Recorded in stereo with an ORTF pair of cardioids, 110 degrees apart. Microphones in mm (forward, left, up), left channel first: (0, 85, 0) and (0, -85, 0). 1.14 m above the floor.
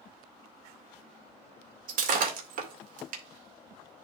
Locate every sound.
1.9 s breaking glass: 55° right, 2.5 m